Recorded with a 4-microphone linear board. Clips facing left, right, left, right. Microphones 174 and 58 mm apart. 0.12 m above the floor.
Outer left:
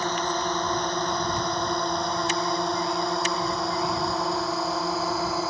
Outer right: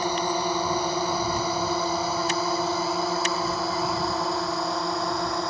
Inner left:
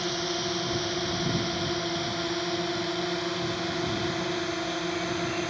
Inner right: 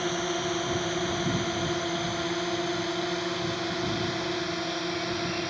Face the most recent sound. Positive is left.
turn(degrees=0)  # may be behind; listen again after turning